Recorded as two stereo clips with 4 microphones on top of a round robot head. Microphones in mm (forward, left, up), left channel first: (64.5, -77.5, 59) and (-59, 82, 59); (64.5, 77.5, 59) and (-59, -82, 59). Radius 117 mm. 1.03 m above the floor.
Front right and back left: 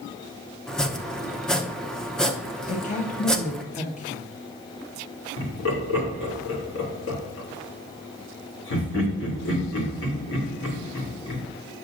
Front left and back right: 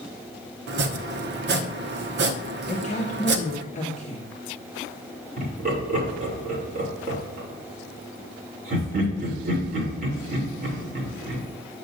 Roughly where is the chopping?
Behind right.